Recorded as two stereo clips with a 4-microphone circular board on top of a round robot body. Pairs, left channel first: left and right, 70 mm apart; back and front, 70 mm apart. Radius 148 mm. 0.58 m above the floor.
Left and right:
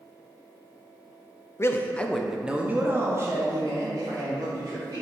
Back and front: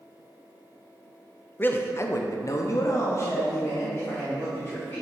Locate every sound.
1.6 s a man speaking: 125° left, 0.7 m; by 5.0 s 120° right, 1.9 m